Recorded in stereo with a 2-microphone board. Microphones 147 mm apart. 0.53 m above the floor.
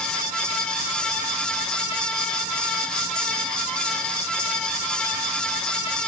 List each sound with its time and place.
Only background noise.